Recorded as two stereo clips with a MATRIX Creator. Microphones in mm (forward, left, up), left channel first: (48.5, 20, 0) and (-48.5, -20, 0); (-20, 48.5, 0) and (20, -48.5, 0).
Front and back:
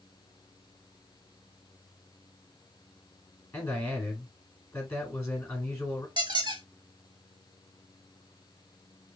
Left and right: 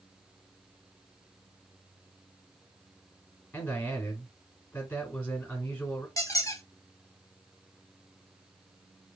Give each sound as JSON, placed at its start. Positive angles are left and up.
{"t": 3.5, "sound": "a man speaking", "azimuth_deg": 70, "distance_m": 1.9}
{"t": 6.2, "sound": "a squeak", "azimuth_deg": 165, "distance_m": 0.6}